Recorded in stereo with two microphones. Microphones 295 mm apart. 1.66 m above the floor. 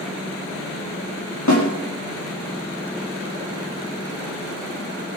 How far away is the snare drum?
About 4.5 m.